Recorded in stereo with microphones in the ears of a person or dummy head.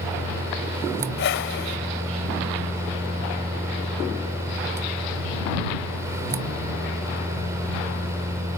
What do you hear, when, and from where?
0.0 s a fan: 15° right (ahead or behind)
1.2 s a whoosh: 65° left (ahead or behind)